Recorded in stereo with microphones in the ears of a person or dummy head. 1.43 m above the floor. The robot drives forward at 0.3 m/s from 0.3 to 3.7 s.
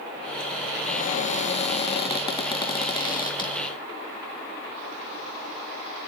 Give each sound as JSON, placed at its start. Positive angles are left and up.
{"t": 0.8, "sound": "a cupboard door", "side_deg": 40, "distance_m": 0.8}